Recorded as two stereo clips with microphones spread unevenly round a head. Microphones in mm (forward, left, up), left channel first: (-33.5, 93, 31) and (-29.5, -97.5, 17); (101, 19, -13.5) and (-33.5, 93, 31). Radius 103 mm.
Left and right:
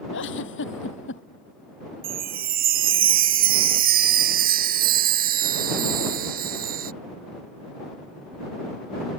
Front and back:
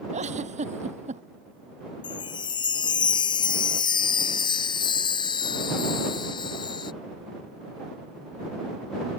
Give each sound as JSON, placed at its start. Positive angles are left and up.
{"t": 0.1, "sound": "a giggle", "azimuth_deg": 110}
{"t": 2.0, "sound": "a chime", "azimuth_deg": -70}